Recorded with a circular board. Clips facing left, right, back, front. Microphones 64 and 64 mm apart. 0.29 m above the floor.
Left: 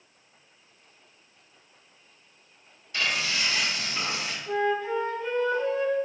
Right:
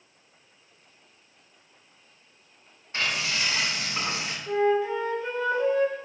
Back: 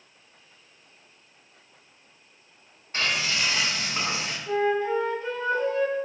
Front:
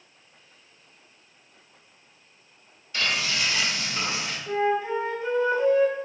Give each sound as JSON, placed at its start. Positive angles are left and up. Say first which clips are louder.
{"t": 2.9, "sound": "frying", "louder": "even, even", "azimuth_deg": -140, "distance_m": 1.5}
{"t": 4.5, "sound": "a flute", "louder": "right 3 dB, back 1 dB", "azimuth_deg": -35, "distance_m": 0.6}